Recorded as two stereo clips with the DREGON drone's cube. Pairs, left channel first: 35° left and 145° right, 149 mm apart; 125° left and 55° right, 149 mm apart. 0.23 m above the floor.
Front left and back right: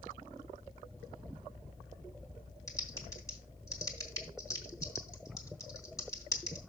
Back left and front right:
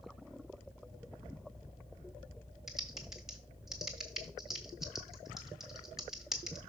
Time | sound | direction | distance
2.7 | typing on a keyboard | 30° left | 1.5 m